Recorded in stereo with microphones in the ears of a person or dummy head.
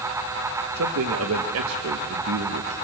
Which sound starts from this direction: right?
A man speaking, at 0.8 s.